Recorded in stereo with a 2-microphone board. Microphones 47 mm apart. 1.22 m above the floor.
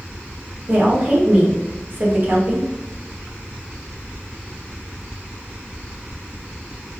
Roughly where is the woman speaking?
Right.